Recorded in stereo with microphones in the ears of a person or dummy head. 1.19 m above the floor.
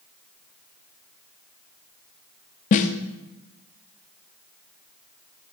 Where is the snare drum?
35° left (ahead or behind), 0.7 m.